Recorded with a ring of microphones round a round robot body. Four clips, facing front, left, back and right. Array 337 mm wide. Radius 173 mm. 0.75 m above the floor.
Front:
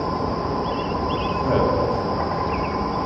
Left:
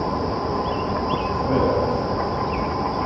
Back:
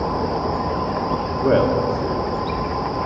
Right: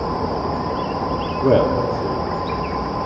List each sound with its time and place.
1.4 s a man speaking: 110° right, 1.5 m